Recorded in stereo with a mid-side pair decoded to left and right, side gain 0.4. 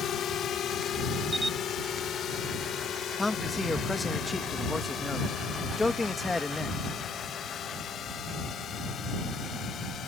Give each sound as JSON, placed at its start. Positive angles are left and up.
{"t": 0.0, "sound": "a drone", "azimuth_deg": 70}
{"t": 1.3, "sound": "a camera shutter", "azimuth_deg": -15}
{"t": 3.2, "sound": "a man speaking", "azimuth_deg": 20}